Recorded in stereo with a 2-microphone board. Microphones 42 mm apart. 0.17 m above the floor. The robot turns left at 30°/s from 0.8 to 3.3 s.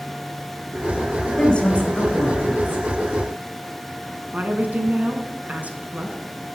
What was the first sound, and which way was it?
A woman speaking, 20° left (ahead or behind).